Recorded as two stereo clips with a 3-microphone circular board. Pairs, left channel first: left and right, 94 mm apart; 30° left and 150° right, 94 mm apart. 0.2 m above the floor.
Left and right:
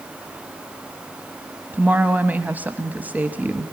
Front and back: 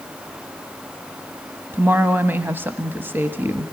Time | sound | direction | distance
1.7 | a woman speaking | 130° right | 1.0 m